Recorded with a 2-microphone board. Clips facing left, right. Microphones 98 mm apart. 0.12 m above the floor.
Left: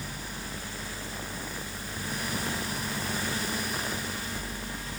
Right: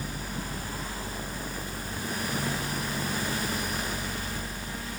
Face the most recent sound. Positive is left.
No sound to turn to.